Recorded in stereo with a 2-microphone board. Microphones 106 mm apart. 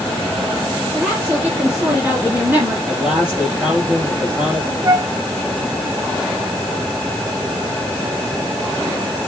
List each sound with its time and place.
0.9 s a woman speaking: 10° right (ahead or behind), 4.5 m; by 2.8 s 15° right (ahead or behind), 2.5 m
2.9 s a man speaking: 10° right (ahead or behind), 5.5 m
4.8 s a flute: 30° right (ahead or behind), 0.5 m